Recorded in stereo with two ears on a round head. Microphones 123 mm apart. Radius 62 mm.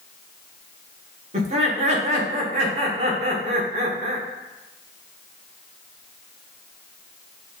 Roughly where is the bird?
I don't hear a bird.